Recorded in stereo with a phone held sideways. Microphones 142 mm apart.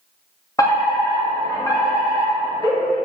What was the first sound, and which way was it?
A fire alarm, 25° left (ahead or behind).